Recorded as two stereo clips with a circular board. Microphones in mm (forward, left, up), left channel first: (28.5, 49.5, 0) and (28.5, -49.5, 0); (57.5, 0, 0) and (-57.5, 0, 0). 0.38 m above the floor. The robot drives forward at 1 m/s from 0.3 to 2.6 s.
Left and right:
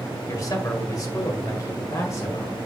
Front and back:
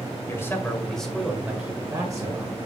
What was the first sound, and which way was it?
A man speaking, 55° left.